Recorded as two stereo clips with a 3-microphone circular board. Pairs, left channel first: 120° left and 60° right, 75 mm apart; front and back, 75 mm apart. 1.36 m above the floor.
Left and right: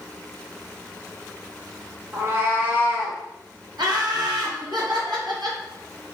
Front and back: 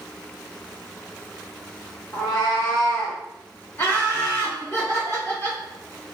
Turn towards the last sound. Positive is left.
turn(degrees=-55)